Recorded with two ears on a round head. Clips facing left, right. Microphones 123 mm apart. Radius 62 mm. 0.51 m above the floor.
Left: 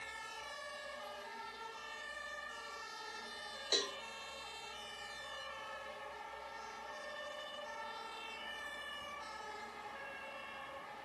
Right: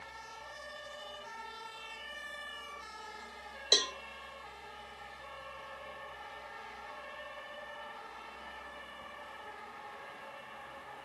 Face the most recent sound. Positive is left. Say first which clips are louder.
# right 4 dB
turn(degrees=-70)  # may be behind; listen again after turning